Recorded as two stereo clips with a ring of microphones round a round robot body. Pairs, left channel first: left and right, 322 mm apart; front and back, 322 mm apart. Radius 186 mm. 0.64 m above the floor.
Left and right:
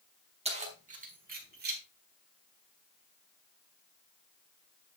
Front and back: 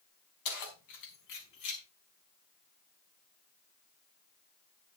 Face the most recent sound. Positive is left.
turn(degrees=-30)